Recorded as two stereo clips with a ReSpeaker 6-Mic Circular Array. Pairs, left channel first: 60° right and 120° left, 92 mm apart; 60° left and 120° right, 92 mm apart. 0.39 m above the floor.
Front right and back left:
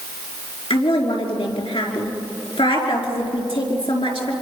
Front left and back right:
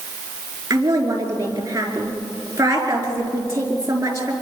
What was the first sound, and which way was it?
A woman speaking, 65° right.